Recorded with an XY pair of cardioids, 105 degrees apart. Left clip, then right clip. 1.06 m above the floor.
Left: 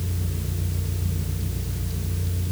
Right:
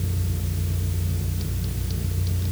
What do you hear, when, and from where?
Only background noise.